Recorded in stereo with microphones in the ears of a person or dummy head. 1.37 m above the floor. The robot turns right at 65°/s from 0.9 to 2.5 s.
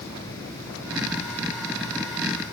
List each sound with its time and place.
Only background noise.